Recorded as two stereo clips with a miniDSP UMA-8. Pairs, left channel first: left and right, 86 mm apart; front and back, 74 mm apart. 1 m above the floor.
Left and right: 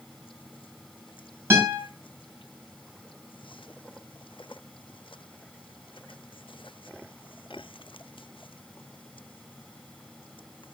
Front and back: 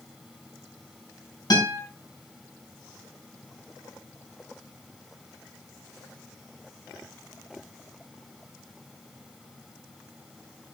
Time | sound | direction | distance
1.5 | a guitar | 25° right | 5.5 m